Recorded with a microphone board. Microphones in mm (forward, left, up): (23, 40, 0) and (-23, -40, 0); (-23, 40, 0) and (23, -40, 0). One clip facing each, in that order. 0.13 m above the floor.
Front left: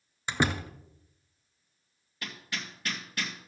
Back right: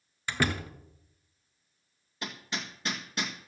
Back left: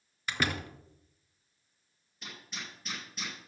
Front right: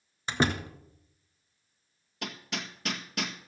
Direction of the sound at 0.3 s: 5° right.